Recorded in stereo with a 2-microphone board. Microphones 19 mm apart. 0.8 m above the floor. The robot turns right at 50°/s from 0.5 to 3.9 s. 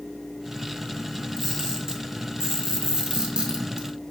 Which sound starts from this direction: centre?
A camera shutter, at 1.4 s.